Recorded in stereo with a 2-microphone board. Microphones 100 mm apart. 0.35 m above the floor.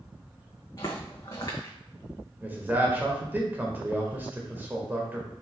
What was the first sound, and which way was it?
Footsteps, 40° left (ahead or behind).